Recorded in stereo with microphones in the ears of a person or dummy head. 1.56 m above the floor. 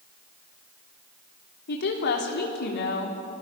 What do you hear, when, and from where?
1.7 s a woman speaking: 60° left (ahead or behind), 3.5 m